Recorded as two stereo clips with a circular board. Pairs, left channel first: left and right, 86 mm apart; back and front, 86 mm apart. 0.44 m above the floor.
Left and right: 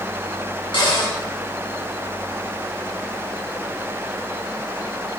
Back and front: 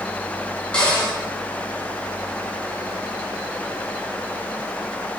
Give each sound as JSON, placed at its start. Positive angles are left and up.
{"t": 0.7, "sound": "a cupboard door", "azimuth_deg": 105, "distance_m": 3.0}